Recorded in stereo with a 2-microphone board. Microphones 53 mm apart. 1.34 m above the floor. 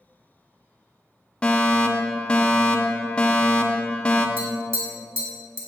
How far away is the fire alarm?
About 0.9 m.